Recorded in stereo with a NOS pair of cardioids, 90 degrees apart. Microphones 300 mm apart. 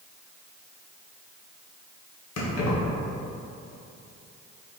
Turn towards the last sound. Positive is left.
turn(degrees=65)